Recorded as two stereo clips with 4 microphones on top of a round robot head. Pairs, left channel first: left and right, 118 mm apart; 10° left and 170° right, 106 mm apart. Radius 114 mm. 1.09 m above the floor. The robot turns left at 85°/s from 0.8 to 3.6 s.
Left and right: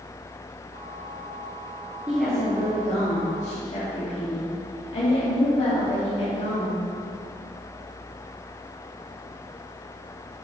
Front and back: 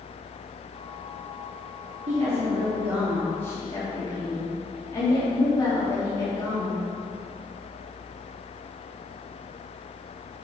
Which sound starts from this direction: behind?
A woman speaking, at 2.1 s.